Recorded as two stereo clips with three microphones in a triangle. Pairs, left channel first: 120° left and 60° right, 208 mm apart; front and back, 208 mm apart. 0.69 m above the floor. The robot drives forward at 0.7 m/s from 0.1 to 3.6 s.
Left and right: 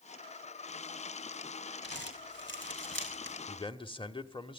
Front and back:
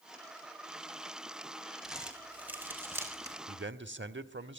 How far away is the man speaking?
About 1.3 m.